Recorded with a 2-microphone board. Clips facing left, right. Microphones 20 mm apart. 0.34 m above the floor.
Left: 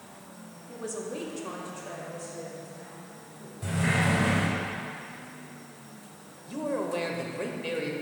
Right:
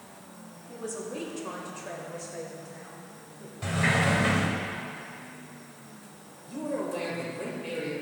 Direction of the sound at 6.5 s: 30° left (ahead or behind).